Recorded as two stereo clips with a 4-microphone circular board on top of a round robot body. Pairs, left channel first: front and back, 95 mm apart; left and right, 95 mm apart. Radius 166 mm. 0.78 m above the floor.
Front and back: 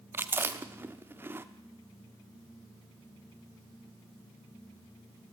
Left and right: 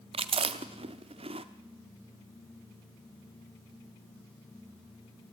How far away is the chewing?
About 0.9 m.